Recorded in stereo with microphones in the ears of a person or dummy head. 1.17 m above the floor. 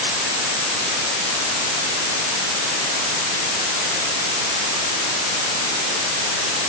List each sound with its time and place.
Only background noise.